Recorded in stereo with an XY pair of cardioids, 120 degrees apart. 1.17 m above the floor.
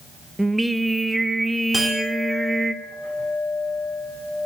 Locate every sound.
0.4 s singing: 5° right, 0.8 m
1.7 s a clink: 10° left, 2 m